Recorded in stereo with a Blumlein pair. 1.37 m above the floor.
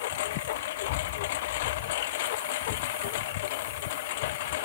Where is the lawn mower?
55° left; by 4.7 s 50° left.